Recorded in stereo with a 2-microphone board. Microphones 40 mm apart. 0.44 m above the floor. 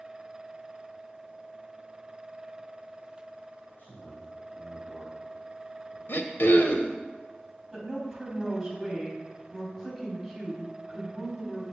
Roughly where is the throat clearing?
Left.